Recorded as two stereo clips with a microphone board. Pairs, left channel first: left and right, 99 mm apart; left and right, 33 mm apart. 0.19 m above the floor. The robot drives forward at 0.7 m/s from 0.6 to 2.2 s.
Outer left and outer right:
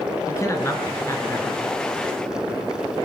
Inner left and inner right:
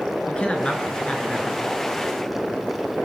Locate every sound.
0.3 s a man speaking: 30° left (ahead or behind), 3.5 m; by 1.6 s 25° left (ahead or behind), 4 m